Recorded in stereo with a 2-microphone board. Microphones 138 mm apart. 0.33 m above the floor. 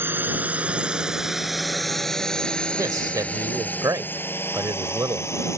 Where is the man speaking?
25° right (ahead or behind).